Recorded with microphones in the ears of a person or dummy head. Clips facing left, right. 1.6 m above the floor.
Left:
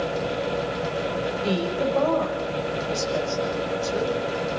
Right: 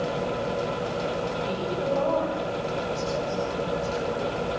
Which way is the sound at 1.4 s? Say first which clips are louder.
Left 5 dB; 65° left (ahead or behind).